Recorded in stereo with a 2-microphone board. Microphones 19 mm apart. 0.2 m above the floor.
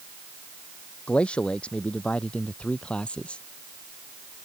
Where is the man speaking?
75° left (ahead or behind); by 3.4 s 70° left (ahead or behind).